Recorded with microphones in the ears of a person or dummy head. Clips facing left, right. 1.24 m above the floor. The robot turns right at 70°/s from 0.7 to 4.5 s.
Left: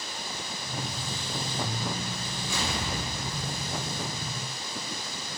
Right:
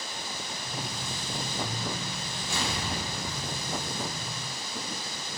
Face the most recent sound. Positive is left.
turn(degrees=-110)